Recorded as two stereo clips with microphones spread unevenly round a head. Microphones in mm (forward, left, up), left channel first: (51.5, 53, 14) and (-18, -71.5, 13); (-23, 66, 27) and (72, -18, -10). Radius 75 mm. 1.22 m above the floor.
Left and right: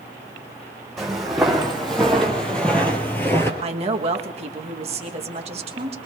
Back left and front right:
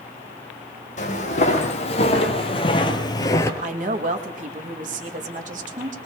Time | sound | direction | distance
1.0 | footsteps | 150° left | 3 m
3.6 | a woman speaking | 75° right | 1.6 m